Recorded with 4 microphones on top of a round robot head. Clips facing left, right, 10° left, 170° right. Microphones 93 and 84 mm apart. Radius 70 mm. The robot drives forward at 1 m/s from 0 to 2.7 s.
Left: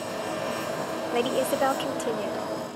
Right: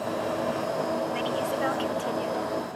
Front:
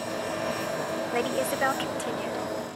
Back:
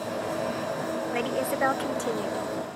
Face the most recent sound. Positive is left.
turn(degrees=145)